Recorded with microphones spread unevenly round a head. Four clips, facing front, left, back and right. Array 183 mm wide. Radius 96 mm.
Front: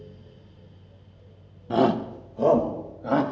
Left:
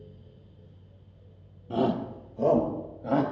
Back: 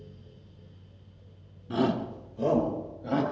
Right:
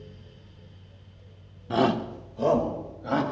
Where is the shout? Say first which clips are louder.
Right 3 dB, front 6 dB; 10° right, 1.0 m; by 3.2 s 20° left, 2.5 m.